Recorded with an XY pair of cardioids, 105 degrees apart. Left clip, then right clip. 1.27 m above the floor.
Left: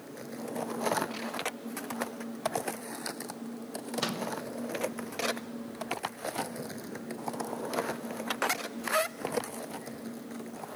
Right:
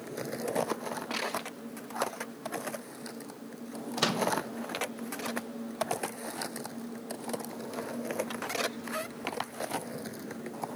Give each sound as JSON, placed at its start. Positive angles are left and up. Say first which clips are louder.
{"t": 4.0, "sound": "a microwave", "louder": "right 5 dB", "azimuth_deg": -35, "distance_m": 1.1}